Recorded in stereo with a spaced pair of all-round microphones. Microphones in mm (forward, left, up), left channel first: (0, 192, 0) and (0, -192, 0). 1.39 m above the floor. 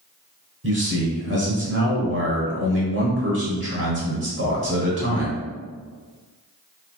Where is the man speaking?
40° right (ahead or behind), 0.8 m.